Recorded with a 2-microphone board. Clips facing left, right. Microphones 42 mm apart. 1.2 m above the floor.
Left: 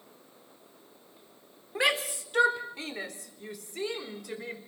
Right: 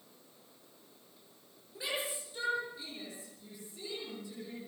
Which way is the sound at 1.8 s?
85° left.